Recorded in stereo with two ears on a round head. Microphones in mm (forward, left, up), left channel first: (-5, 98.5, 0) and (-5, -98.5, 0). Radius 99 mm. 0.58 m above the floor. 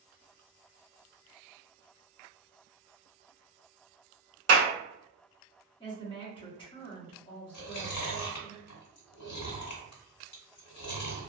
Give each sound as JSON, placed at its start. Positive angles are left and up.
{"t": 4.5, "sound": "a clap", "side_deg": -55, "distance_m": 1.0}
{"t": 5.8, "sound": "a woman speaking", "side_deg": 25, "distance_m": 1.0}
{"t": 7.5, "sound": "chewing", "side_deg": 80, "distance_m": 1.5}